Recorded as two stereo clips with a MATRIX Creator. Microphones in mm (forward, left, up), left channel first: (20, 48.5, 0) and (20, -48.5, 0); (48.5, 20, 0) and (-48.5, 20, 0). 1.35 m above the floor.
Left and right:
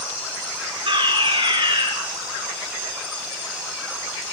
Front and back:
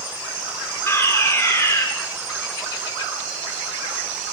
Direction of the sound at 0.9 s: 60° right.